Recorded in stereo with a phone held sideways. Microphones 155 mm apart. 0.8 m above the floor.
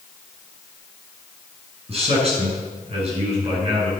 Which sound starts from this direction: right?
A man speaking, at 1.9 s.